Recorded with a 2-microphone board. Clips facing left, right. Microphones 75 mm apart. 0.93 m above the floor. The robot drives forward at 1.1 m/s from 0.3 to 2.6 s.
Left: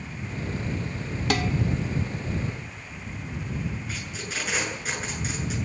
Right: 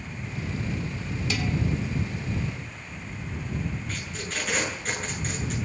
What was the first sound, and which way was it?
Dishes clattering, 65° left (ahead or behind).